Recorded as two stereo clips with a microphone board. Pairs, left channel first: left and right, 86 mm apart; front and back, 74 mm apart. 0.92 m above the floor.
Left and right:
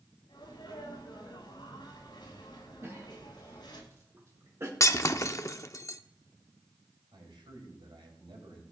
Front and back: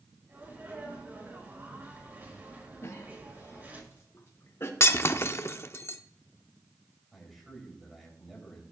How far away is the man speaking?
About 5 m.